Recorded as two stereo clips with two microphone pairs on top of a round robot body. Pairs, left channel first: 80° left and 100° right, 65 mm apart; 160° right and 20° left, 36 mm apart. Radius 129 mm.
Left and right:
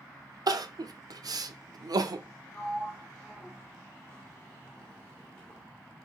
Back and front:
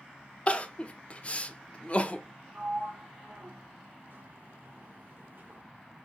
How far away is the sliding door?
About 1.9 m.